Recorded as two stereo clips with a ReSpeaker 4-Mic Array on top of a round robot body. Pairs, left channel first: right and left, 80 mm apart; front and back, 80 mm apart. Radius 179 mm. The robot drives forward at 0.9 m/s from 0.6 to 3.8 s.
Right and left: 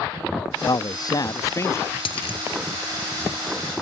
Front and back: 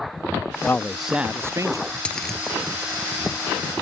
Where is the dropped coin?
75° right; by 2.4 s 90° right.